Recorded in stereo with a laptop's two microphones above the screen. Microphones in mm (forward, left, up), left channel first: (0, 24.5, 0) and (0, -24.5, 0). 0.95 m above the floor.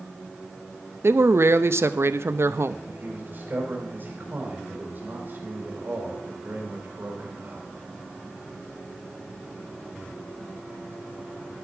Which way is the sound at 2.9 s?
45° right (ahead or behind).